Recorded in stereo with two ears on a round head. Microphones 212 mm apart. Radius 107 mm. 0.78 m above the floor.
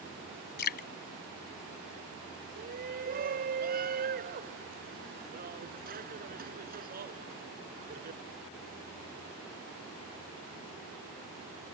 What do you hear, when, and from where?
0.6 s dripping: 40° left (ahead or behind)
2.6 s a shout: 40° right (ahead or behind)